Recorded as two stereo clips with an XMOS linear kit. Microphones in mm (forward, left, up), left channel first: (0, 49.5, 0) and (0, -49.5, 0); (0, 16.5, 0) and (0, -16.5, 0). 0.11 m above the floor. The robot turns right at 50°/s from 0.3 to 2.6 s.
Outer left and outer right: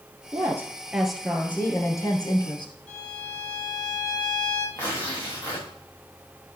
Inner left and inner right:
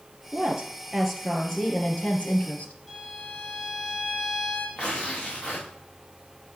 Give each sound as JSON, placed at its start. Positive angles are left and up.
{"t": 0.3, "sound": "a woman speaking", "azimuth_deg": -40, "distance_m": 2.0}
{"t": 2.9, "sound": "a violin", "side_deg": 5, "distance_m": 3.0}
{"t": 4.8, "sound": "tearing paper", "side_deg": 30, "distance_m": 4.0}